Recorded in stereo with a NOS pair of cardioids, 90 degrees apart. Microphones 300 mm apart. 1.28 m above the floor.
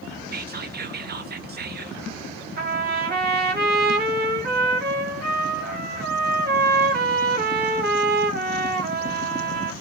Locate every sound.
0.3 s whispering: 30° right, 0.8 m
2.6 s a trumpet: 35° right, 1.0 m